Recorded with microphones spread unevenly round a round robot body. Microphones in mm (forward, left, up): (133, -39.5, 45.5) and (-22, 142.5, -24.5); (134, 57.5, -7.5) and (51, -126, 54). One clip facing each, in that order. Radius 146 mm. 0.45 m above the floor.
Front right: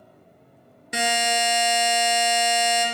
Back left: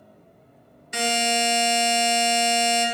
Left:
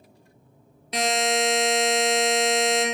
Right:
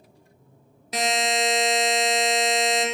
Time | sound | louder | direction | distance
0.9 | a buzzer | back left 1 dB, left 1 dB | 30° right | 1.3 m